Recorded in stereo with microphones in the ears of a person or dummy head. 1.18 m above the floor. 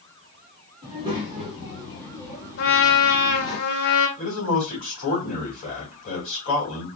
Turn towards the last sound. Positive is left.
turn(degrees=40)  # may be behind; listen again after turning